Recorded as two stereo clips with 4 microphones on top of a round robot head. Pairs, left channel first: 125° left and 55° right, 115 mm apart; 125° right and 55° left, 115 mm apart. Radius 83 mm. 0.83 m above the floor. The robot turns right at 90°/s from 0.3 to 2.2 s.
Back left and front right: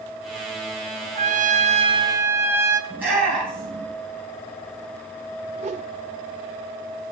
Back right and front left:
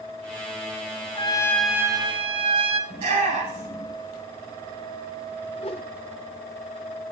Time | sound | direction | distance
1.1 | a trumpet | 80° right | 1.1 m
2.9 | a shout | 20° left | 8.5 m
5.6 | a whoosh | 80° right | 0.8 m